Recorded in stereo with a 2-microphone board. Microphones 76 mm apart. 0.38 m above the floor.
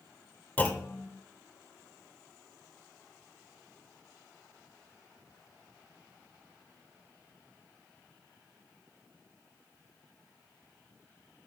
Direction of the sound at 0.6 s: 20° left (ahead or behind).